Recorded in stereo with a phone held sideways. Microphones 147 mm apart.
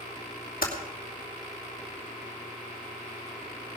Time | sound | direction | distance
0.6 | typing on a keyboard | 75° left (ahead or behind) | 2.5 m